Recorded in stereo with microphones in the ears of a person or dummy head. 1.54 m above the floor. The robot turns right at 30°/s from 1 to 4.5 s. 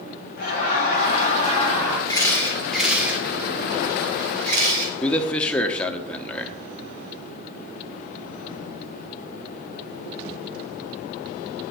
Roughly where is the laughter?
Left.